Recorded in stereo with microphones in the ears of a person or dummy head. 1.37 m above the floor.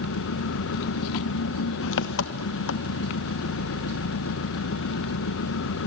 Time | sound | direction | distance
0.0 | an engine running | 70° left (ahead or behind) | 1.0 m